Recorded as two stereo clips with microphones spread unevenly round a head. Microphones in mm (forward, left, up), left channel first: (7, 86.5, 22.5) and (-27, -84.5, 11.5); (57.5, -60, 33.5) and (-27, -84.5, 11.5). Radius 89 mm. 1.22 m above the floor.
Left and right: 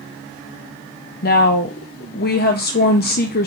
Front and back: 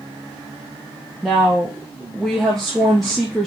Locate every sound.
1.2 s a woman speaking: 110° left, 0.7 m